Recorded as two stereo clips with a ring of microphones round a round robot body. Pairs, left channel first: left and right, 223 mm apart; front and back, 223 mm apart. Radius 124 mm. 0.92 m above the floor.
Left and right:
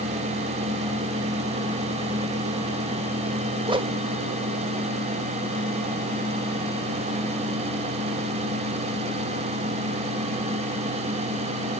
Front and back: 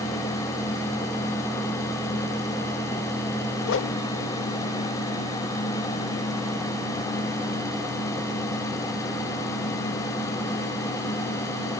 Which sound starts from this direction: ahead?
A whoosh, at 3.6 s.